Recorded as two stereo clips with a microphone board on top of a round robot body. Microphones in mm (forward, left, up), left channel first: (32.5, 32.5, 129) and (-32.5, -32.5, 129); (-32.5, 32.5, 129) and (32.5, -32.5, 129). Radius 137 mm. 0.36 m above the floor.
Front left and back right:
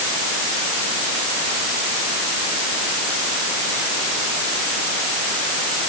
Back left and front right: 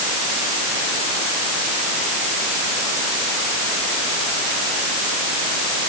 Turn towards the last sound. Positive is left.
No sound to turn to.